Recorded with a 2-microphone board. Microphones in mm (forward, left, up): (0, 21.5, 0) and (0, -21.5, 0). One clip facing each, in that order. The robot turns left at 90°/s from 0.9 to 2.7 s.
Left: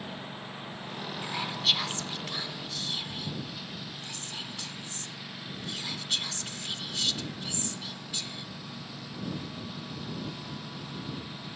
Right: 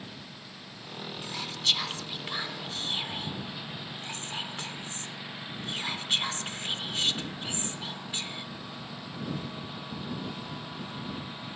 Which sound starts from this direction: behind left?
A lawn mower, at 0.0 s.